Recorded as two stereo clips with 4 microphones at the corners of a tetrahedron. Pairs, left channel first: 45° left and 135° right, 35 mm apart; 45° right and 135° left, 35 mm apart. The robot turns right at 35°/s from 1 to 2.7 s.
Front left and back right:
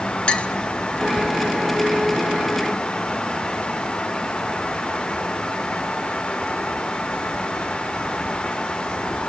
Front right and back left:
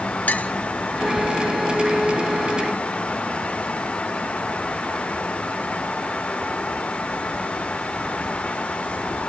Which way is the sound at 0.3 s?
10° right.